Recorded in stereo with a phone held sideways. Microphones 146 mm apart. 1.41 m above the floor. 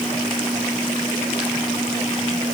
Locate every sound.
Only background noise.